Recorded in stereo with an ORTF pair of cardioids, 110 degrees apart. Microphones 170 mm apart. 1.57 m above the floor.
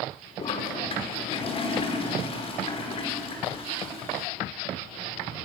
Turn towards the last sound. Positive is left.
turn(degrees=35)